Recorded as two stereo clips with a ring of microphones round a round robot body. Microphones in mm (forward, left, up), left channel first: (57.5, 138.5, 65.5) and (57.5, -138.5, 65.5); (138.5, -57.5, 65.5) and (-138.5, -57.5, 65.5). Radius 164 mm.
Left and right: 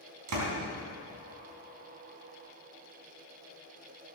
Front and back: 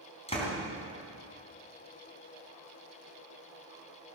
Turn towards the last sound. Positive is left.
turn(degrees=-70)